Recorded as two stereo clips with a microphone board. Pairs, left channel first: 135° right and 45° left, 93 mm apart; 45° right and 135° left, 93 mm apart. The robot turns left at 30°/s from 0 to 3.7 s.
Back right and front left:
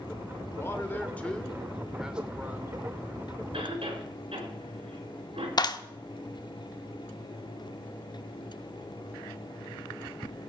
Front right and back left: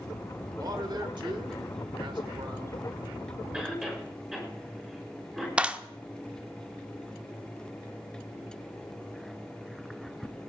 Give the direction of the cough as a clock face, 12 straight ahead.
10 o'clock.